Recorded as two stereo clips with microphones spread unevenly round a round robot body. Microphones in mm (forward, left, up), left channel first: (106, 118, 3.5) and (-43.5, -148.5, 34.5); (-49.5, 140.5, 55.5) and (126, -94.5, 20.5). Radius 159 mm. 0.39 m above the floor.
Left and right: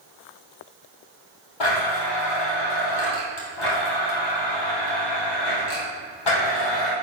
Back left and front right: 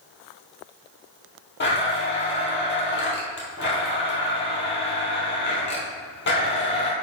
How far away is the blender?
About 2.5 m.